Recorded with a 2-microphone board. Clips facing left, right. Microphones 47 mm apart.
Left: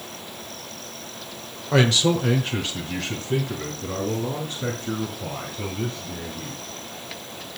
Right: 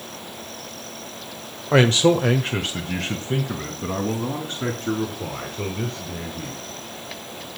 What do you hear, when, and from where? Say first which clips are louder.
1.7 s a man speaking: right 3 dB; 25° right (ahead or behind), 1.0 m; by 6.6 s 70° right (ahead or behind), 6 m